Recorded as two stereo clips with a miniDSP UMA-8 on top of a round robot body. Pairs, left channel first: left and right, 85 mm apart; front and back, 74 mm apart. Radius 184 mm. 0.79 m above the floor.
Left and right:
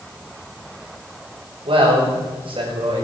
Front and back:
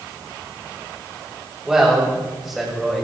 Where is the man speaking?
100° right, 6.5 m; by 3.0 s 90° right, 6 m.